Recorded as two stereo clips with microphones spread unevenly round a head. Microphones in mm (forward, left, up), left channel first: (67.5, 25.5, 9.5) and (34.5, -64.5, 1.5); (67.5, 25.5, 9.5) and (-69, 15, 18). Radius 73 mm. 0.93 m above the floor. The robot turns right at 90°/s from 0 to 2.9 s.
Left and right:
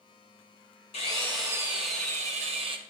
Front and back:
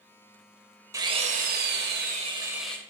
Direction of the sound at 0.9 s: 120° left.